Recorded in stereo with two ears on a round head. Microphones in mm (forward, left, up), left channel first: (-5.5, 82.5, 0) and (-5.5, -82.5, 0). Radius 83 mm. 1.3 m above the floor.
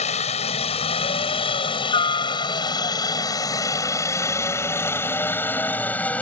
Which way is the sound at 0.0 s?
35° left (ahead or behind).